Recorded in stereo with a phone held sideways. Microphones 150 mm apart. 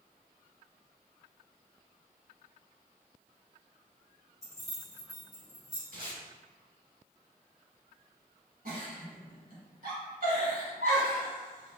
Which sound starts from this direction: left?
Keys jangling, at 4.4 s.